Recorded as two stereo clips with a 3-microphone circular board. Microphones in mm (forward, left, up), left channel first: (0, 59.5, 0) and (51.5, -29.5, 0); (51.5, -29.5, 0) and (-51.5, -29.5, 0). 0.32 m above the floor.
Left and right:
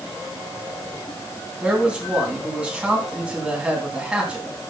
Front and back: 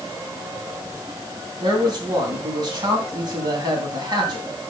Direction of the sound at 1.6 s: 140° right.